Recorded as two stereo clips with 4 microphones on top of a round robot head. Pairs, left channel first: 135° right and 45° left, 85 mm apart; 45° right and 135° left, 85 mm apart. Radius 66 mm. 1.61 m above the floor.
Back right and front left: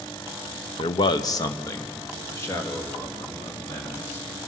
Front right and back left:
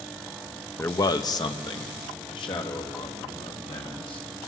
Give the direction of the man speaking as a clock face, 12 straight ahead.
4 o'clock.